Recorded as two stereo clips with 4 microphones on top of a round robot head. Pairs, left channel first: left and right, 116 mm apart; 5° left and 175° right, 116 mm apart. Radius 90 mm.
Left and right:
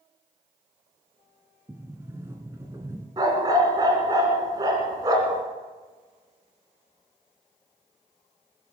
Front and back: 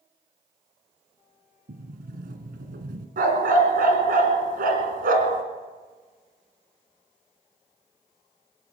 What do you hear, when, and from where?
1.7 s a sliding door: 165° right, 1.3 m
3.2 s a dog barking: 160° right, 1.8 m